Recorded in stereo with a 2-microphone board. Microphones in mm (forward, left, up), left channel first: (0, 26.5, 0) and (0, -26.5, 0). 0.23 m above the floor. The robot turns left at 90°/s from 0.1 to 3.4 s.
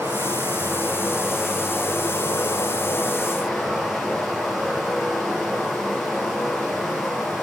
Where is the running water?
65° right, 4.5 m; by 7.4 s 5° right, 4.5 m.